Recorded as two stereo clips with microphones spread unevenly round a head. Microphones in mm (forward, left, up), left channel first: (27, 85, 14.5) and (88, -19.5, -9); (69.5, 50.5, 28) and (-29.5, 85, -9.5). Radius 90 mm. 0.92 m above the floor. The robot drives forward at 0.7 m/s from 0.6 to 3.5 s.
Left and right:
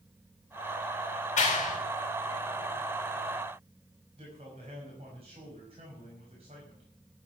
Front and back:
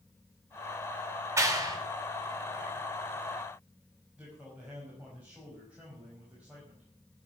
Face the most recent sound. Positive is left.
turn(degrees=-120)